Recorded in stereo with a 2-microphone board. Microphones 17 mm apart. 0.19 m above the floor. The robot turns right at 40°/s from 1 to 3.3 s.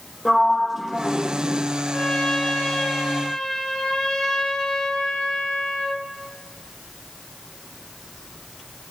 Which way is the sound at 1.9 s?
75° left.